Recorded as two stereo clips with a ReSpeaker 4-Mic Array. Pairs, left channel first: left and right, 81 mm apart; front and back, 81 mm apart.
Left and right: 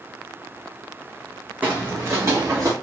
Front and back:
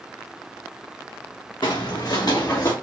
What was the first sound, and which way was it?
Footsteps, 20° right.